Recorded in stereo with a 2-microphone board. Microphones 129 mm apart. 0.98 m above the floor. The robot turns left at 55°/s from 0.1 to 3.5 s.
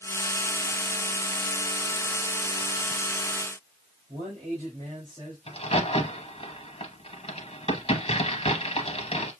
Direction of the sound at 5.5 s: 45° left (ahead or behind).